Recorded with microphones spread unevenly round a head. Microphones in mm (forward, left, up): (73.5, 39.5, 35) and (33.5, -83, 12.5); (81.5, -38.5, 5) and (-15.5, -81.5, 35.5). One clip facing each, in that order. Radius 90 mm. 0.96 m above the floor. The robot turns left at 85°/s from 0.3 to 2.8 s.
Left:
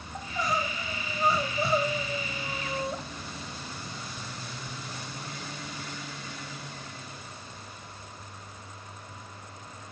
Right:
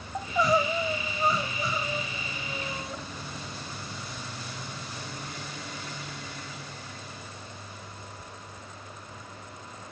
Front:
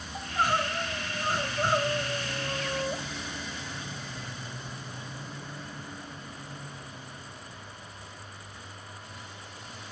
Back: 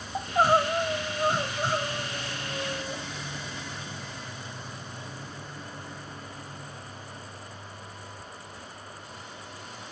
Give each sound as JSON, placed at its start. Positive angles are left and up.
{"t": 0.1, "sound": "crying", "azimuth_deg": -125, "distance_m": 0.8}